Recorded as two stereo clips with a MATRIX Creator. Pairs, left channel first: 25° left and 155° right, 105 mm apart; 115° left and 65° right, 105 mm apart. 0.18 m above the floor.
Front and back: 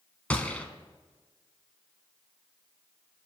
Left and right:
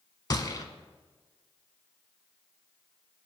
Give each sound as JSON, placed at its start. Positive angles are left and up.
{"t": 0.3, "sound": "a gunshot", "azimuth_deg": 90, "distance_m": 0.7}